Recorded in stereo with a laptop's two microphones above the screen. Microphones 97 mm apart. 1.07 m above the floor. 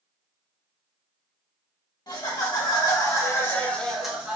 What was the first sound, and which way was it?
Laughter, 45° left (ahead or behind).